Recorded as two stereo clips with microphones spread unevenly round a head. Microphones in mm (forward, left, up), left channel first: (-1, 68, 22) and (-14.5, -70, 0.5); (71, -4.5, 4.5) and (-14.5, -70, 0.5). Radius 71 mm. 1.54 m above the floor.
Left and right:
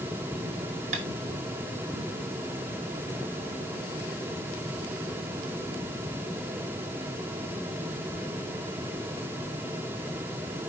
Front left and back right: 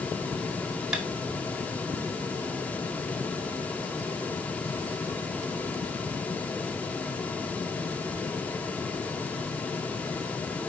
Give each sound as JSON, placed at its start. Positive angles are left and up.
{"t": 0.9, "sound": "tapping", "azimuth_deg": -60, "distance_m": 2.0}